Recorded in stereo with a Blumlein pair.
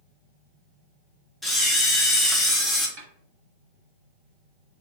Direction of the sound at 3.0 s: 45° right.